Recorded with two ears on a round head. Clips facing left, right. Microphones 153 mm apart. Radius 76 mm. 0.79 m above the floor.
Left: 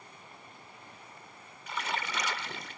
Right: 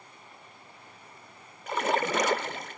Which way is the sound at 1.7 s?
40° right (ahead or behind).